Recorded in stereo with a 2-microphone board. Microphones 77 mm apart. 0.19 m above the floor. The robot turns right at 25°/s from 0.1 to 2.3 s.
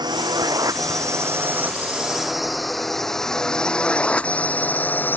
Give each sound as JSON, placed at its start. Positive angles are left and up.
{"t": 0.0, "sound": "a drone", "side_deg": -75}